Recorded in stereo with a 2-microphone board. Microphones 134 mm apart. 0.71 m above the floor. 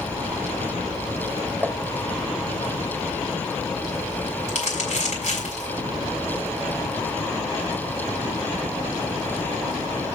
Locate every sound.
1.6 s tapping: 5° right (ahead or behind), 3.5 m
4.5 s crumpling: 65° left (ahead or behind), 6.5 m